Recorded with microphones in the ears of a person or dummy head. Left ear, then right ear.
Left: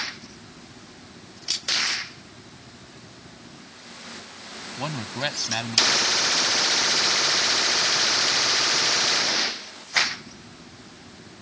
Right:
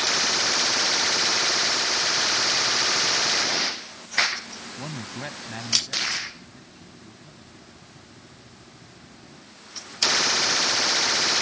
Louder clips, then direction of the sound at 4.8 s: Left 8 dB; 45° left (ahead or behind).